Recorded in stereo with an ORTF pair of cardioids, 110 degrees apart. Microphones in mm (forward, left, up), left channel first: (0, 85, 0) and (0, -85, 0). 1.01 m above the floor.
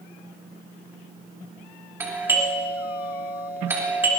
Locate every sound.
2.0 s a doorbell: 15° right, 3.5 m